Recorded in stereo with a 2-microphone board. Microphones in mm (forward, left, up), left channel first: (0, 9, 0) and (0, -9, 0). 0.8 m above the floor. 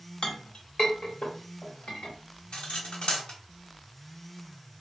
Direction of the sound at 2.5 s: 85° left.